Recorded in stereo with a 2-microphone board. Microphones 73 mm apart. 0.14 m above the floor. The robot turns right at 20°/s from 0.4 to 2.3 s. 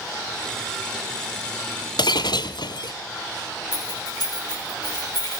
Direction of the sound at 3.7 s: 65° left (ahead or behind).